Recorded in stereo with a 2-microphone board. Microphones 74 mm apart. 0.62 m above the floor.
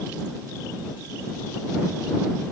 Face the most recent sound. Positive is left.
No sound to turn to.